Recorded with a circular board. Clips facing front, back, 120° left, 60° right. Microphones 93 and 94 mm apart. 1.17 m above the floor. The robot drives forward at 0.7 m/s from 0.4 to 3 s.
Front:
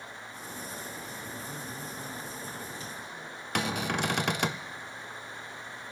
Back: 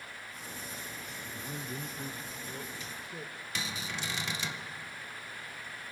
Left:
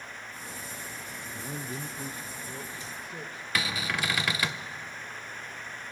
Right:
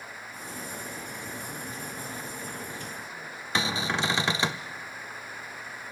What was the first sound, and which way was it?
A man speaking, 105° left.